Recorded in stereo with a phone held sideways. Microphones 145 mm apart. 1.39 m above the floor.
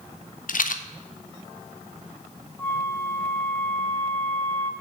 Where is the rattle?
70° left (ahead or behind), 0.8 m.